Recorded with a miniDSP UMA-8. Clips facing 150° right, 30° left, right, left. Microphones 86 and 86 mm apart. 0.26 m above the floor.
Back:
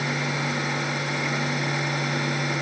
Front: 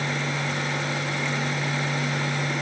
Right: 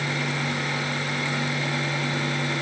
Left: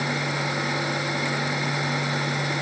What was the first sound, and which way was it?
Only background noise.